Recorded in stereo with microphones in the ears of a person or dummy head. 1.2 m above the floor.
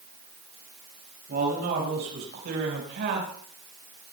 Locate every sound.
1.3 s a man speaking: 50° right (ahead or behind), 6 m; by 3.3 s 55° right (ahead or behind), 4.5 m